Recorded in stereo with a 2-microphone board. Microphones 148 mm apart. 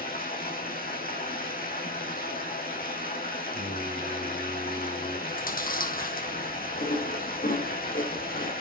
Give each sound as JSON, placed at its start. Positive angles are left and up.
{"t": 0.0, "sound": "running water", "side_deg": 80, "distance_m": 5.5}
{"t": 3.5, "sound": "singing", "side_deg": 45, "distance_m": 3.5}
{"t": 5.3, "sound": "chewing", "side_deg": 75, "distance_m": 5.0}